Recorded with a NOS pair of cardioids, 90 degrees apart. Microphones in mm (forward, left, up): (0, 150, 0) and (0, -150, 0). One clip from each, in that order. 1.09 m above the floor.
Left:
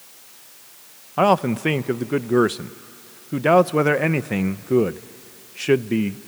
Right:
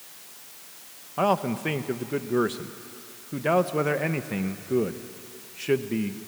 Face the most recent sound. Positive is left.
turn(degrees=30)